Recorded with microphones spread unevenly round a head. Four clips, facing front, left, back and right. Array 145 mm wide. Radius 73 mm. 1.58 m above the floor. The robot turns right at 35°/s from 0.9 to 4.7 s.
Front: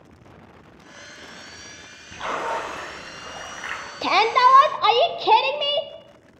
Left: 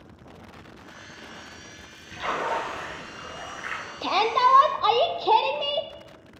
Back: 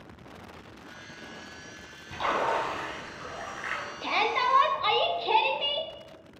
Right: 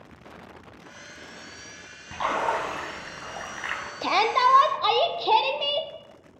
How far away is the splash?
About 4.5 m.